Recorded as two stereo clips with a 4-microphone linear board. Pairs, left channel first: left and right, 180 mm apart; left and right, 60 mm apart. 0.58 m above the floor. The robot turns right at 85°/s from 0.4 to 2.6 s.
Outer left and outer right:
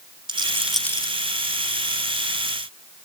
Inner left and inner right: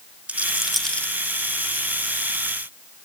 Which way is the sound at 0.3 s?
25° right (ahead or behind).